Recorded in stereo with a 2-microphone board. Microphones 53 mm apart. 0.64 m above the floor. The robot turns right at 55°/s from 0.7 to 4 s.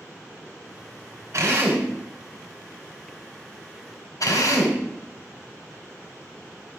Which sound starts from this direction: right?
A drill, at 1.3 s.